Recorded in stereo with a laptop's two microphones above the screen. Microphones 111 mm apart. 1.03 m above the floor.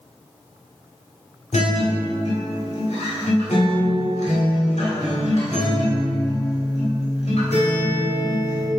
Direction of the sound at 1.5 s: 85° left.